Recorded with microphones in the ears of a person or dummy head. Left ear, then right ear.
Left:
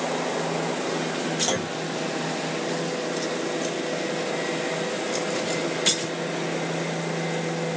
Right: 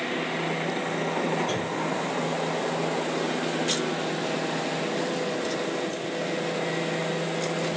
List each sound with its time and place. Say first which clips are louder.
1.5 s a clunk: left 1 dB; 70° left (ahead or behind), 1.1 m